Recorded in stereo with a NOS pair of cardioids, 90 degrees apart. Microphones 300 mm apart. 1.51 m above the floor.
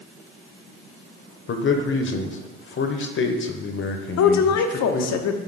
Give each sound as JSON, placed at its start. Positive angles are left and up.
{"t": 1.5, "sound": "a man speaking", "azimuth_deg": 45, "distance_m": 1.0}
{"t": 4.2, "sound": "a woman speaking", "azimuth_deg": 65, "distance_m": 0.8}